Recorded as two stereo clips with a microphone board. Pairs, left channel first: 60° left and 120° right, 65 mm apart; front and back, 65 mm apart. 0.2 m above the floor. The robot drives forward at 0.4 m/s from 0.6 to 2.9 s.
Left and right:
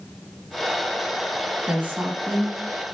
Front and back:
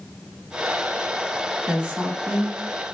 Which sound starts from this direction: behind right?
A woman speaking, at 1.7 s.